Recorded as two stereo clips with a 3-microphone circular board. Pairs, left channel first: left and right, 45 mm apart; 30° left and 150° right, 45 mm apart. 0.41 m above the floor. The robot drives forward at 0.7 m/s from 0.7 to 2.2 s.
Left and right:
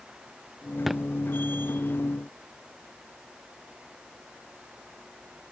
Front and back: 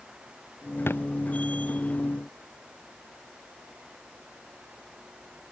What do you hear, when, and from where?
0.9 s a thud: 5° right